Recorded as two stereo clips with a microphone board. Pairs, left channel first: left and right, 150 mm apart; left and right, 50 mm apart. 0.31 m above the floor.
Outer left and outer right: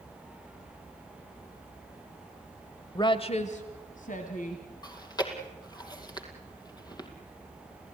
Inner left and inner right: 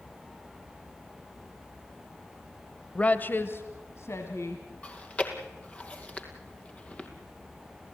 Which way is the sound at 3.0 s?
25° left (ahead or behind).